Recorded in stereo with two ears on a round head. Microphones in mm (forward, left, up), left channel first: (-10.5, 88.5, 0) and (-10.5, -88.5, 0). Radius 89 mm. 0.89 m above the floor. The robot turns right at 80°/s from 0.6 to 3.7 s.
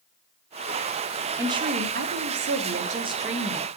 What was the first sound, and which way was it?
A woman speaking, 165° right.